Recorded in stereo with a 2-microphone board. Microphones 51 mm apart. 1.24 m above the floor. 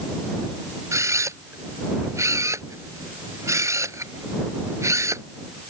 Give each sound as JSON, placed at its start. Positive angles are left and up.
{"t": 0.9, "sound": "a camera shutter", "side_deg": -80}